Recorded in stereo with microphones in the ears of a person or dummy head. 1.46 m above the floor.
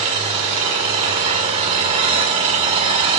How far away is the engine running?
About 1.7 m.